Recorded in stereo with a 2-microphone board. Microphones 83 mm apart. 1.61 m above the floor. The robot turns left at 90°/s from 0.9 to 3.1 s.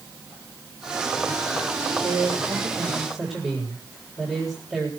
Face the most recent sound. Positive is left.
turn(degrees=180)